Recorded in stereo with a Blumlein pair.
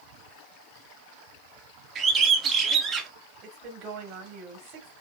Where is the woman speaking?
35° right, 1.6 m.